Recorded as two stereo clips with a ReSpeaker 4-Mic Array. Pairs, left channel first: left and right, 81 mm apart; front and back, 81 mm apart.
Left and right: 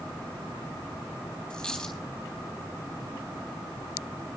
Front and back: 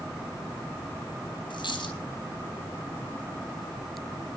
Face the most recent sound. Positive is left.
turn(degrees=10)